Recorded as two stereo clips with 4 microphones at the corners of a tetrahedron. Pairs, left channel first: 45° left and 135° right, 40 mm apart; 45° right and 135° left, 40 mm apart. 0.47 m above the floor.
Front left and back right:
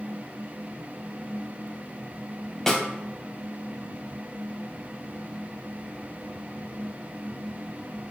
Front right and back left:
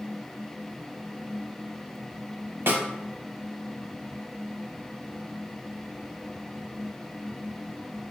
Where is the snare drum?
120° left, 0.6 m.